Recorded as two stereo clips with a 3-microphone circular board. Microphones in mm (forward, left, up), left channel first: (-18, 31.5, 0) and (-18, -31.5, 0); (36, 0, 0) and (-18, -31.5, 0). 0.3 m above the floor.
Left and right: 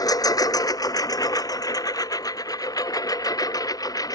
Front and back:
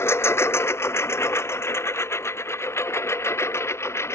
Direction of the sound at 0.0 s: 80° left.